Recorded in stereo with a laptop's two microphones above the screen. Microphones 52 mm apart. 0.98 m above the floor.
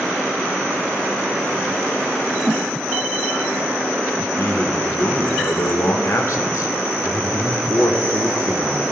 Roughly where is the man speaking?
Left.